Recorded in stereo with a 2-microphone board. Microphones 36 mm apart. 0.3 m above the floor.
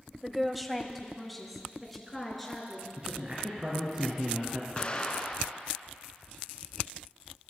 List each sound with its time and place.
0.2 s a woman speaking: 5° right (ahead or behind), 1.0 m; by 2.9 s 5° left (ahead or behind), 4.5 m
3.0 s a man speaking: 30° right (ahead or behind), 3.5 m
4.8 s an explosion: 30° left (ahead or behind), 2 m